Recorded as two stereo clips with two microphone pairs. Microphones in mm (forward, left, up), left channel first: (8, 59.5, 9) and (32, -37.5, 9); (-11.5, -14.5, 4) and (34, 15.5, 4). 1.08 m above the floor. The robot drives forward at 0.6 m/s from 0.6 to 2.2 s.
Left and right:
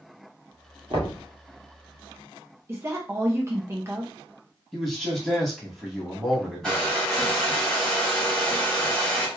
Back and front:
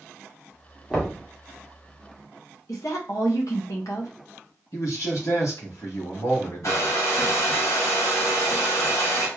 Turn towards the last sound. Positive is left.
turn(degrees=-175)